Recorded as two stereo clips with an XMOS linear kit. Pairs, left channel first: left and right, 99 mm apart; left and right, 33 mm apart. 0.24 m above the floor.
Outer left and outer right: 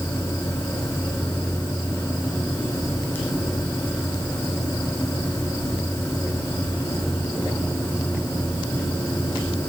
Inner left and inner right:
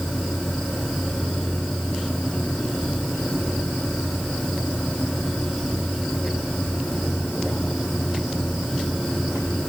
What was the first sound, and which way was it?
Only background noise.